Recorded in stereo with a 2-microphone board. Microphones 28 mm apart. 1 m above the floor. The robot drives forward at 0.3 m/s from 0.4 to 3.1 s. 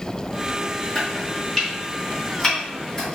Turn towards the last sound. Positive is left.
turn(degrees=15)  # may be behind; listen again after turning